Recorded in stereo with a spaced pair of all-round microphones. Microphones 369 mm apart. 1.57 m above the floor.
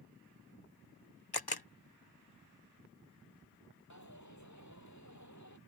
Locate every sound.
1.3 s a camera shutter: 80° left
3.9 s a dropped coin: 50° left (ahead or behind)